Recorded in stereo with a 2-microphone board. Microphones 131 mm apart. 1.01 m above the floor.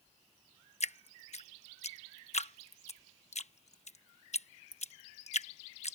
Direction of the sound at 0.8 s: 55° left (ahead or behind).